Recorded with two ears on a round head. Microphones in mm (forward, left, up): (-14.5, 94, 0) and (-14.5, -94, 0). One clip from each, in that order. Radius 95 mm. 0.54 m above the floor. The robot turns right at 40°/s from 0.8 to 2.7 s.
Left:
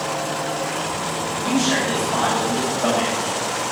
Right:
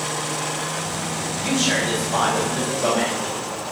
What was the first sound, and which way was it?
A man speaking, 60° right (ahead or behind).